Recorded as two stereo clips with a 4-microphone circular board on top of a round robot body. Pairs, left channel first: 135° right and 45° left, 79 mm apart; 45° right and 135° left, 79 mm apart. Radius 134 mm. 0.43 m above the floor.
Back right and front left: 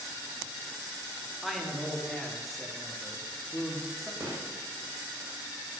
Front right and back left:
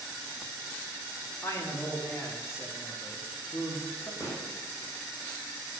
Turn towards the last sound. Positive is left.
turn(degrees=-5)